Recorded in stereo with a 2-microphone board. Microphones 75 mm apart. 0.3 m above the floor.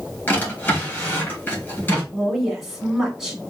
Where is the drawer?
25° left (ahead or behind), 2.5 m.